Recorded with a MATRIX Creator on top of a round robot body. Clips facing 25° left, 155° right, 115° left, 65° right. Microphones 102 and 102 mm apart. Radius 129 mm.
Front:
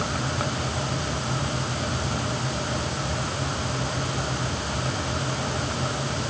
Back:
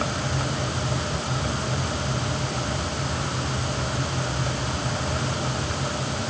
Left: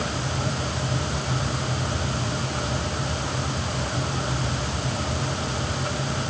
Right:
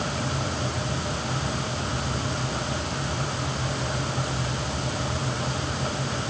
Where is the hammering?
I don't hear hammering.